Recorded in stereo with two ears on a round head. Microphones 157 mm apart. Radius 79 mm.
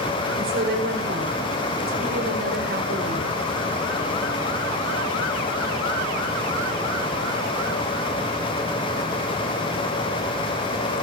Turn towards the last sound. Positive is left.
turn(degrees=-65)  # may be behind; listen again after turning